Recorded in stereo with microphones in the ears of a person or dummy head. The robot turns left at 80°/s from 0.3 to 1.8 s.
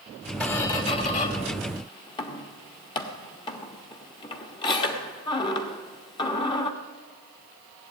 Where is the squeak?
5° left (ahead or behind), 1.1 m; by 6.7 s 25° left (ahead or behind), 1.1 m.